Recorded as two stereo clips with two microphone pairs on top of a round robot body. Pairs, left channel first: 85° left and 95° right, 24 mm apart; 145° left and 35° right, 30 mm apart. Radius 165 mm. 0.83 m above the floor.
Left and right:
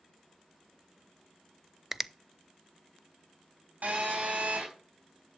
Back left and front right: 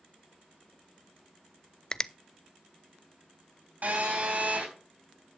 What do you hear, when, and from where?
1.9 s a finger snap: 165° right, 0.7 m
3.8 s a phone buzzing: 70° right, 4.5 m